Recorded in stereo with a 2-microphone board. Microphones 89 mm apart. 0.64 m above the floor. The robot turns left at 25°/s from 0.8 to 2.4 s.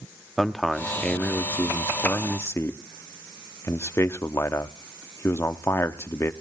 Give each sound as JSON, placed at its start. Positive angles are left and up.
{"t": 0.4, "sound": "a man speaking", "azimuth_deg": 175, "distance_m": 0.9}